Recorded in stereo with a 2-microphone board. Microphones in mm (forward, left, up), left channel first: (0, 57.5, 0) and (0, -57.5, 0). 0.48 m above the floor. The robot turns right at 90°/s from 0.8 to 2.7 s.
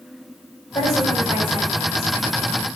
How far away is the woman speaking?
About 3 m.